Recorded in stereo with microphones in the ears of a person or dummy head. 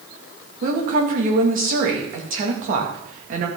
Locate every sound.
0.6 s a woman speaking: 50° right (ahead or behind), 2.5 m